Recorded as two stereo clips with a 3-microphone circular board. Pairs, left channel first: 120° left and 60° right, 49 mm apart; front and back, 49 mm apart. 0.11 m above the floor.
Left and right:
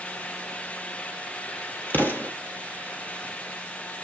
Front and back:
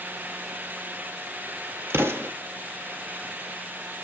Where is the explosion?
160° left, 2 m.